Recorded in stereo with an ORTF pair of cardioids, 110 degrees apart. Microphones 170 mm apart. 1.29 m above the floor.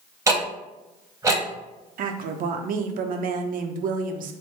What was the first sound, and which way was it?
Ticking, 15° right.